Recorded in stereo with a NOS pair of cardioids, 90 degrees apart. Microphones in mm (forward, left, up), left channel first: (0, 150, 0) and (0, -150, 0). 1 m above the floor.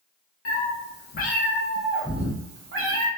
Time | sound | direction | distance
0.5 | a cat meowing | 50° left | 1.0 m